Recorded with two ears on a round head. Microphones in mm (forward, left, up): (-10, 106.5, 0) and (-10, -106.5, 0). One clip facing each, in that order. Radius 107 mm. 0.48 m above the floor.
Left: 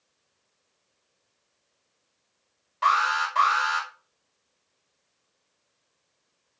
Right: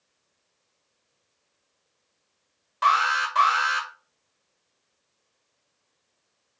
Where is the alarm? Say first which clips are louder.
Right 1 dB; 20° right (ahead or behind), 1.1 m.